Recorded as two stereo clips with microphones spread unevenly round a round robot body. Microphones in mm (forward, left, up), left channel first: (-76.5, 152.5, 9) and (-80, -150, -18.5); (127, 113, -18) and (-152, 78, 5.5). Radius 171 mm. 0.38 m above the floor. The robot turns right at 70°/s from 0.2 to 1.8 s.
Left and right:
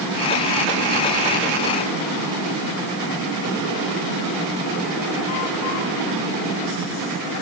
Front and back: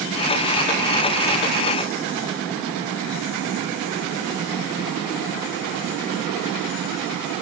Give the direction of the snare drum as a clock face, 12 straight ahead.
No snare drum in this recording.